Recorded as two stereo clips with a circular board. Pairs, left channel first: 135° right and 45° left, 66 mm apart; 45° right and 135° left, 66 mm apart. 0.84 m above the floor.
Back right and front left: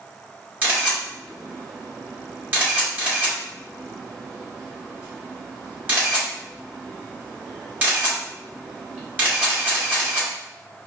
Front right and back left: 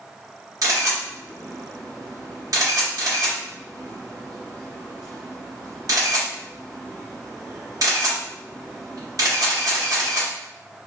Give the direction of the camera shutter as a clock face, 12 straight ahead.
8 o'clock.